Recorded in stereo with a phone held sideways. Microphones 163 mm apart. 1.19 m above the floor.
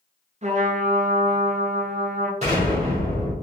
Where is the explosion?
45° right (ahead or behind), 1.7 m.